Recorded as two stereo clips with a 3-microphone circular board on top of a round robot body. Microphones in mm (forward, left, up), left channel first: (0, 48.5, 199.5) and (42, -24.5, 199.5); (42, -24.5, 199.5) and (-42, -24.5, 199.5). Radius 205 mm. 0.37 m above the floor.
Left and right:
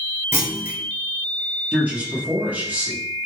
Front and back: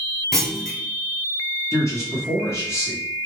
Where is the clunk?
80° right, 1.2 m.